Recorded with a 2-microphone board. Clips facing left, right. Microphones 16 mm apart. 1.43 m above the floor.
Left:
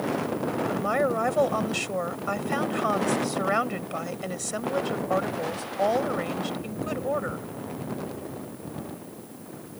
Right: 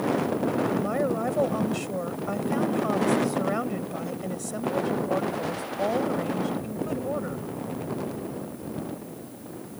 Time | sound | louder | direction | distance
0.7 | a woman speaking | left 1 dB | 25° left (ahead or behind) | ?